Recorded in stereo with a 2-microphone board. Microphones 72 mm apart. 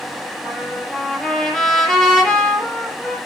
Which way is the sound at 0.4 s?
5° left (ahead or behind).